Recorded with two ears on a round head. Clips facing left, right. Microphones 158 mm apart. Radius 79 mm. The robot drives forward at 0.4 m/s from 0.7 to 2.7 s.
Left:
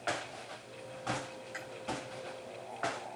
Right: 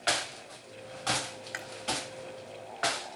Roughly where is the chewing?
Right.